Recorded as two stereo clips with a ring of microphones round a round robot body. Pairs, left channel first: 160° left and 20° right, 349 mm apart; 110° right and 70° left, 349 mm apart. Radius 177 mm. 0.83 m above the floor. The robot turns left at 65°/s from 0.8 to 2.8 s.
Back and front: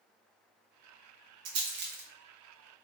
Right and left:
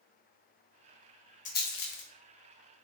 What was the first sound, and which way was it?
A rattle, 50° right.